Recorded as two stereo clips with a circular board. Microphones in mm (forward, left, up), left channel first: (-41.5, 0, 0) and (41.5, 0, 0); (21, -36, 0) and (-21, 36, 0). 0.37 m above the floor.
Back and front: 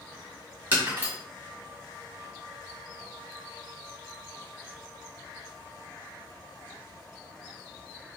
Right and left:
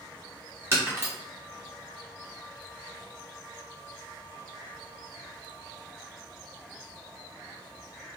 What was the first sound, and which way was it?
Breaking glass, 65° left.